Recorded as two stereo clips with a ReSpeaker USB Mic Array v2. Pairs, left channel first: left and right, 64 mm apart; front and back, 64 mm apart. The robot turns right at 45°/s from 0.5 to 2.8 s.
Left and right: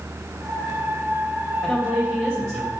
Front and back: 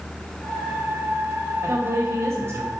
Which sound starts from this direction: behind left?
A woman speaking, at 1.6 s.